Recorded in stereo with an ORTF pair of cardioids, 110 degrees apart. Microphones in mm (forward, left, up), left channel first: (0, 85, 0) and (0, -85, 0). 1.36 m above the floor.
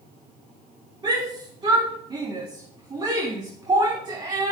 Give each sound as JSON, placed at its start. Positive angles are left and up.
{"t": 1.0, "sound": "a shout", "azimuth_deg": -25, "distance_m": 3.5}